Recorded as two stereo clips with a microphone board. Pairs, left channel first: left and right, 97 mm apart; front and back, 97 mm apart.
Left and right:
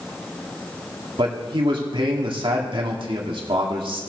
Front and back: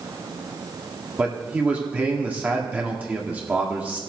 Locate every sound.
1.2 s a man speaking: 110° right, 1.9 m